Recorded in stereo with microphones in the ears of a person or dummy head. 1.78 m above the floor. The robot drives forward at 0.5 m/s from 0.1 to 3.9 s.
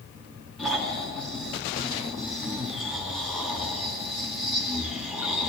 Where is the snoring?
Centre (ahead or behind), 6 m.